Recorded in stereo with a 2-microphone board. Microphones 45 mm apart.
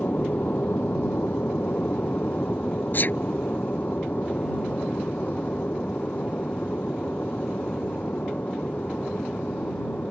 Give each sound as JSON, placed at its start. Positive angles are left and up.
{"t": 0.0, "sound": "an aircraft", "side_deg": 40}
{"t": 2.9, "sound": "a sneeze", "side_deg": 45}